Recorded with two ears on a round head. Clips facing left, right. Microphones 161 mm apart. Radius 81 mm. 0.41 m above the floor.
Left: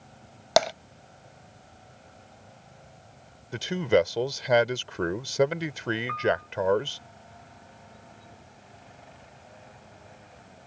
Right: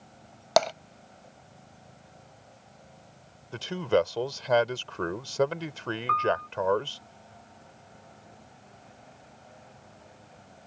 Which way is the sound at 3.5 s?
15° left (ahead or behind).